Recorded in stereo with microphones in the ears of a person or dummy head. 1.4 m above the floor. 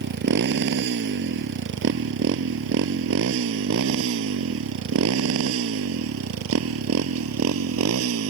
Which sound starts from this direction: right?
A motorcycle, at 0.0 s.